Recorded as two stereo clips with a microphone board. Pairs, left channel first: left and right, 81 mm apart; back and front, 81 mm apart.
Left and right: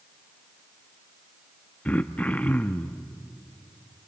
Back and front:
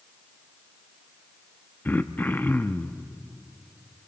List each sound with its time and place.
1.9 s throat clearing: 140° left, 0.6 m